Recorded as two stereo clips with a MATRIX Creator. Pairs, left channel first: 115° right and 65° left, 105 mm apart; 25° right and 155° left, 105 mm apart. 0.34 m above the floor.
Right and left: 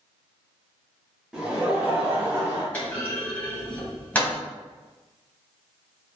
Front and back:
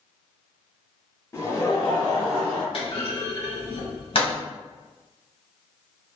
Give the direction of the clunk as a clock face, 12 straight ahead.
1 o'clock.